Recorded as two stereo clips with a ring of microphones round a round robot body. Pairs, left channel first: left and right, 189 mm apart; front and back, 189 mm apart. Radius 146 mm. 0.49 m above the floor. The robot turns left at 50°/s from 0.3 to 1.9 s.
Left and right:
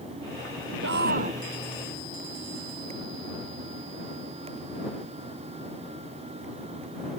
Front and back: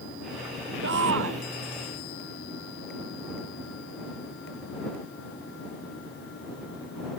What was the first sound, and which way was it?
A shout, 135° right.